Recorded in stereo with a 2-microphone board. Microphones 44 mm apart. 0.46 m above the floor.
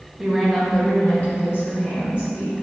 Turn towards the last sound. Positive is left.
turn(degrees=70)  # may be behind; listen again after turning